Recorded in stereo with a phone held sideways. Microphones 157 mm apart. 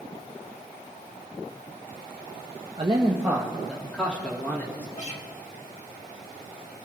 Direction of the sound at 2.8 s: 45° right (ahead or behind).